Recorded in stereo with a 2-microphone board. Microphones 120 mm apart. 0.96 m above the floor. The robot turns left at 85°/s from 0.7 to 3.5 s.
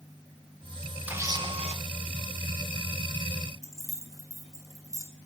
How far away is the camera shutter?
About 2 m.